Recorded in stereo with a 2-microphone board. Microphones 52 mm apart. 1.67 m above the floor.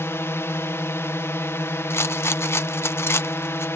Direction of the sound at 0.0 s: 60° left (ahead or behind).